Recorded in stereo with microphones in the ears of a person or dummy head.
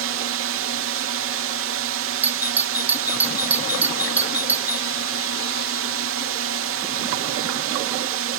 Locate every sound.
0.0 s a drone: 60° right (ahead or behind)
2.2 s a doorbell: 5° right (ahead or behind)